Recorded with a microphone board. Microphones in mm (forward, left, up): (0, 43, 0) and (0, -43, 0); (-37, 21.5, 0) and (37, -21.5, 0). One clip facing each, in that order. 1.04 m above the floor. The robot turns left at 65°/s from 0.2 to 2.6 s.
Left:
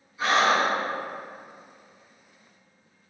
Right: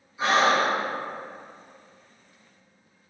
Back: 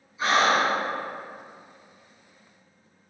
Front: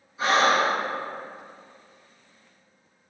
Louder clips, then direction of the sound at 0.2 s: Right 1 dB, front 1 dB; 25° right.